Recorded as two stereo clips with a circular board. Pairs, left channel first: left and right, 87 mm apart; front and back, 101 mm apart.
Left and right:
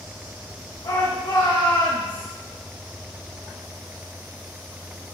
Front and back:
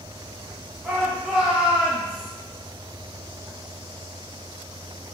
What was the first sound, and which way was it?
A shout, 100° left.